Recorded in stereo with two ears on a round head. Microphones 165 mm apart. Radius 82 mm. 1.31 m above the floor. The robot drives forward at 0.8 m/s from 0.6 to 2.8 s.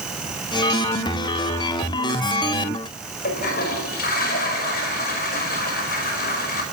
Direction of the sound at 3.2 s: 50° left (ahead or behind).